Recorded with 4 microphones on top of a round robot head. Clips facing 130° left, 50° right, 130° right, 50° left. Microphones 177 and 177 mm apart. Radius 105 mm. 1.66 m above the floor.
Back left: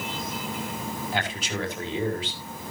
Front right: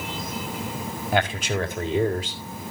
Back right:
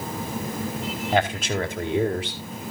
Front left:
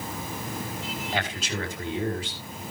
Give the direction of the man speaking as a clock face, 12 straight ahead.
3 o'clock.